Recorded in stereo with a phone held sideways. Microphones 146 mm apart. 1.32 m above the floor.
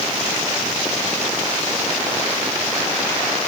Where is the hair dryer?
No hair dryer in this recording.